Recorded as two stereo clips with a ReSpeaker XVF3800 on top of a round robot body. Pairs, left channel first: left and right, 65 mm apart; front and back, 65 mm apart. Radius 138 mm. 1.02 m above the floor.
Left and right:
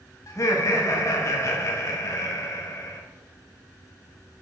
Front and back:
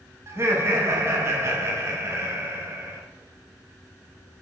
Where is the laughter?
130° left, 1.4 m.